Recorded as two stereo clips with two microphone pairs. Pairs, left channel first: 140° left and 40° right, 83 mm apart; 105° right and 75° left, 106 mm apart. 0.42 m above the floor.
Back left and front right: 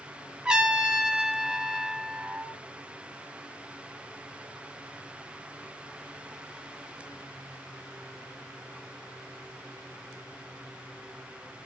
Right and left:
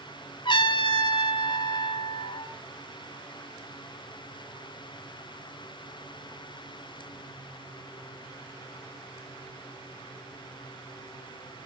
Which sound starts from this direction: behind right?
A trumpet, at 0.5 s.